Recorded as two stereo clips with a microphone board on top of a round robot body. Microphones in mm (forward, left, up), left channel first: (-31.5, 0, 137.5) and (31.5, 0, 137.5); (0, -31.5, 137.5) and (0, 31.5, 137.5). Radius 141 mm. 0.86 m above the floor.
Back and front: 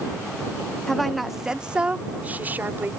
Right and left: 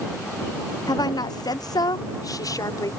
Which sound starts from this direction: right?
A woman speaking, at 0.9 s.